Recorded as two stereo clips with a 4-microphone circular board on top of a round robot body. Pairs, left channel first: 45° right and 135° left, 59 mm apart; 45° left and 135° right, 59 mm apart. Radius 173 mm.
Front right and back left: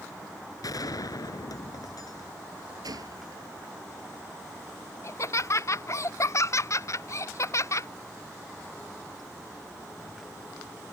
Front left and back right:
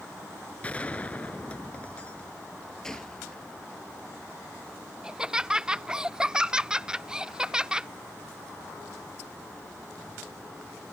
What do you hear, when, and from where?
0.6 s a gunshot: 25° right
2.8 s a gunshot: 125° left
5.0 s laughter: 65° right